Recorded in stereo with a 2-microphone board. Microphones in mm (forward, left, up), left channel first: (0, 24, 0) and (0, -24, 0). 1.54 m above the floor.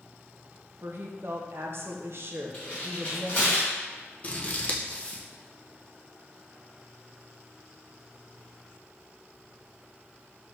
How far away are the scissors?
About 0.6 m.